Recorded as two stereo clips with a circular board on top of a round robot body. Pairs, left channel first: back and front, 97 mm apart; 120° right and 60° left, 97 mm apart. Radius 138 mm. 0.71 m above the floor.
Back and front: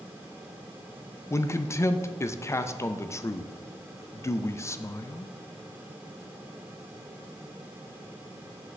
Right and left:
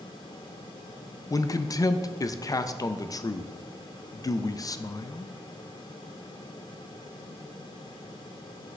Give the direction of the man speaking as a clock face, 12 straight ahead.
5 o'clock.